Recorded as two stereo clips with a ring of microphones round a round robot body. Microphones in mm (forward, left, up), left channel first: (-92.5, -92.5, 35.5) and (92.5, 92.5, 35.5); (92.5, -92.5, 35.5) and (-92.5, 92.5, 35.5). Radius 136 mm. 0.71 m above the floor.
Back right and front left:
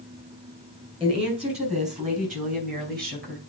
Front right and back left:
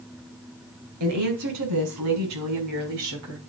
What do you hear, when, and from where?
1.0 s a woman speaking: 115° left, 4 m; by 3.4 s 100° left, 5 m